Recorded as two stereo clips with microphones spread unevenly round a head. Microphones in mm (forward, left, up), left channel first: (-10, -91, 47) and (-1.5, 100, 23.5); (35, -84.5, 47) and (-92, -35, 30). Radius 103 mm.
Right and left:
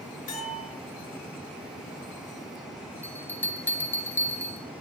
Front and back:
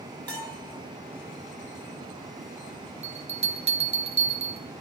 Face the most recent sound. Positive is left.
turn(degrees=-175)